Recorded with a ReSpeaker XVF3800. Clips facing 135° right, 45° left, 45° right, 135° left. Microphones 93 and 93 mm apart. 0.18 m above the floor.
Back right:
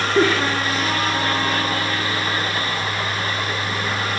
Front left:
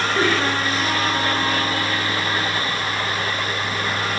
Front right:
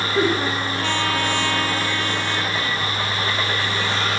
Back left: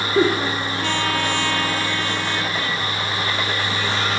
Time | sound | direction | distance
0.1 | a giggle | 140° left | 9 m